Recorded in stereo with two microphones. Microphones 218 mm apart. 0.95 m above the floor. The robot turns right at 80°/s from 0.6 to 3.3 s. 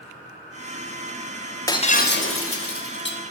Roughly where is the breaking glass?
Ahead.